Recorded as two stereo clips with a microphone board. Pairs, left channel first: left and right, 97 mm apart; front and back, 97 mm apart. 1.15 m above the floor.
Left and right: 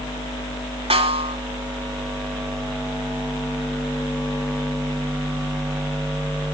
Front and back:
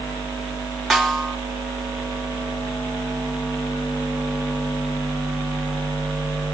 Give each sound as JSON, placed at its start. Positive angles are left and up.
{"t": 0.9, "sound": "a snare drum", "azimuth_deg": -90, "distance_m": 2.5}